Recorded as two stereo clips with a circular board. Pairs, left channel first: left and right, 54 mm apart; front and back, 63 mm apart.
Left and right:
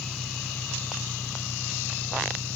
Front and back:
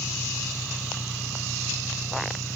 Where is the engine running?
85° right.